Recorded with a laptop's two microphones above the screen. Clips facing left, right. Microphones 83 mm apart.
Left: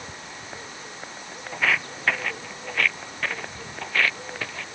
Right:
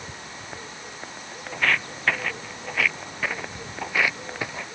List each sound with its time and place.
1.5 s footsteps: 5° left (ahead or behind); by 4.7 s 15° right (ahead or behind)